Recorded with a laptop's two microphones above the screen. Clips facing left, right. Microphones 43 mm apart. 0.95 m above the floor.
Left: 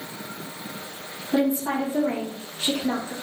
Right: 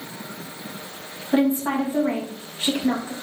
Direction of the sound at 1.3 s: 35° right (ahead or behind).